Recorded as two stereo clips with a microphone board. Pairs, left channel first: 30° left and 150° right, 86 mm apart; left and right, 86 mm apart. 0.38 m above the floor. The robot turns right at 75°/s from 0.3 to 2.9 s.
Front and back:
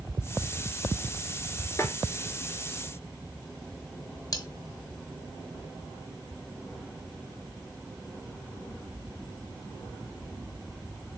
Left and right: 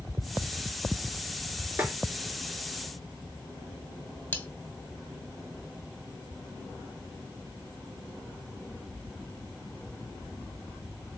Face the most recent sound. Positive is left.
turn(degrees=35)